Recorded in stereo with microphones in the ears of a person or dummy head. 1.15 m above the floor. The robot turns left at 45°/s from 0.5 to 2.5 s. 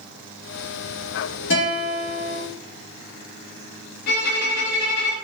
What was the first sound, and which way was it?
A guitar, 55° left.